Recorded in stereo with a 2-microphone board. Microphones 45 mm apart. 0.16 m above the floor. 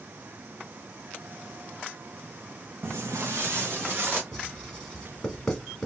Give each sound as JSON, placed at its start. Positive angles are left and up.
{"t": 2.8, "sound": "footsteps", "side_deg": -60, "distance_m": 0.6}
{"t": 4.3, "sound": "writing", "side_deg": 10, "distance_m": 1.3}